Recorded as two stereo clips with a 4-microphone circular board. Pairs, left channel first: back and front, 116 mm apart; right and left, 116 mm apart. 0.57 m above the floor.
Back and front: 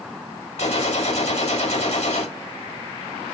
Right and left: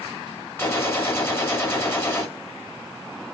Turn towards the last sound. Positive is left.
turn(degrees=-160)